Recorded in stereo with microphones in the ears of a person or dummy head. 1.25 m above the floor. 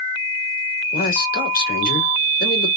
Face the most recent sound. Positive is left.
turn(degrees=55)  # may be behind; listen again after turning